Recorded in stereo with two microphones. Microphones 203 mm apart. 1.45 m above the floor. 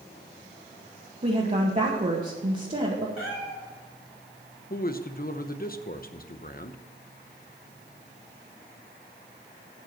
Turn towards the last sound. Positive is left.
turn(degrees=45)  # may be behind; listen again after turning